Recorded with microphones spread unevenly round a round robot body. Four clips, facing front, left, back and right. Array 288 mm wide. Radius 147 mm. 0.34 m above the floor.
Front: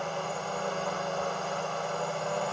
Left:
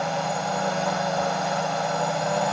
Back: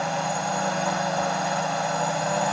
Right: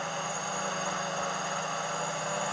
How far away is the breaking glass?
No breaking glass in this recording.